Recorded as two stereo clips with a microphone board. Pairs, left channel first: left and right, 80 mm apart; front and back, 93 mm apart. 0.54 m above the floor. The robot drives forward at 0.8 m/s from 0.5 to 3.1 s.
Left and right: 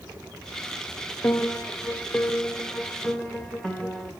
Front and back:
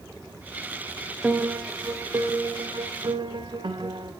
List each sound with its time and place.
1.2 s a piano: 110° left, 1.0 m; by 4.1 s 165° left, 1.9 m